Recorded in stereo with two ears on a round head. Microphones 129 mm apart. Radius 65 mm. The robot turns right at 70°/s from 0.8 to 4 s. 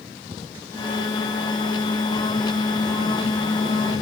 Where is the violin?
I don't hear a violin.